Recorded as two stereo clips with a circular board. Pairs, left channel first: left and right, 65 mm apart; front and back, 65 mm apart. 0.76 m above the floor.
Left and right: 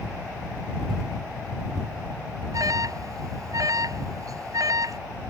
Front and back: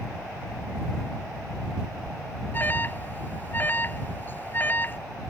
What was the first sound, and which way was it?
An alarm, 60° right.